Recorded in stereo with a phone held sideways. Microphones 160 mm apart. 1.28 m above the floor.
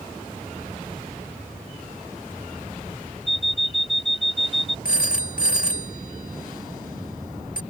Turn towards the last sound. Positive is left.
turn(degrees=65)  # may be behind; listen again after turning